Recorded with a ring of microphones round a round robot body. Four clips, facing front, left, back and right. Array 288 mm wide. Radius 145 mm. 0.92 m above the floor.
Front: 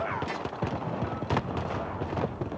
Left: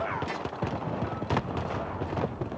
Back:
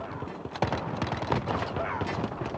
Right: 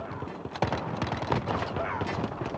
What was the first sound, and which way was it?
Only background noise.